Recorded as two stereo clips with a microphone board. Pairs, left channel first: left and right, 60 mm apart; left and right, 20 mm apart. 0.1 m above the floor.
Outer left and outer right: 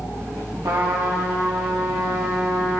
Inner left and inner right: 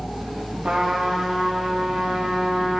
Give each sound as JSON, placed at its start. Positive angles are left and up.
{"t": 0.6, "sound": "a trumpet", "side_deg": -85, "distance_m": 3.5}